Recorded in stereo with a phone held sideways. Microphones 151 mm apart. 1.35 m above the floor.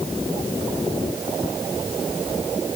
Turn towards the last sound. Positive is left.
No sound to turn to.